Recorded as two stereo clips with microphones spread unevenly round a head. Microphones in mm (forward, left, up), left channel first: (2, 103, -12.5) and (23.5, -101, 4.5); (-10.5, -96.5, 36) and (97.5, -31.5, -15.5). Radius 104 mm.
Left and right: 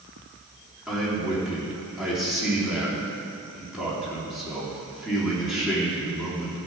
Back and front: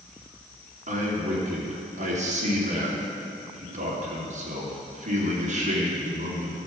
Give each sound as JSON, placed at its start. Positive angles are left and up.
{"t": 0.9, "sound": "a man speaking", "azimuth_deg": 0, "distance_m": 3.0}